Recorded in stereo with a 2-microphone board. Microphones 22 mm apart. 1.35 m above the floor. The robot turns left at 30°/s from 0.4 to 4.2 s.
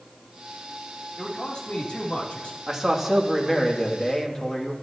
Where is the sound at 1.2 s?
145° left, 3.5 m; by 2.6 s 100° left, 3.5 m.